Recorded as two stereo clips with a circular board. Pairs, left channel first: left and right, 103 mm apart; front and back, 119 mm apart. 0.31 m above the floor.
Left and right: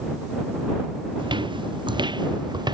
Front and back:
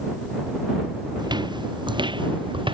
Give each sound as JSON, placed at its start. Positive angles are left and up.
{"t": 1.2, "sound": "footsteps", "azimuth_deg": -130}